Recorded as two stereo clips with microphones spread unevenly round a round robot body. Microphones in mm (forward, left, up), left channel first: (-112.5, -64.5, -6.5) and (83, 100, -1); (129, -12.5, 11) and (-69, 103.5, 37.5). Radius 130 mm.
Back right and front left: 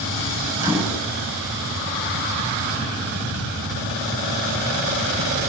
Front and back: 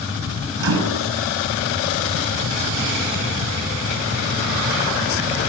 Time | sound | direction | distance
0.6 | a microwave | 120° left | 4.5 m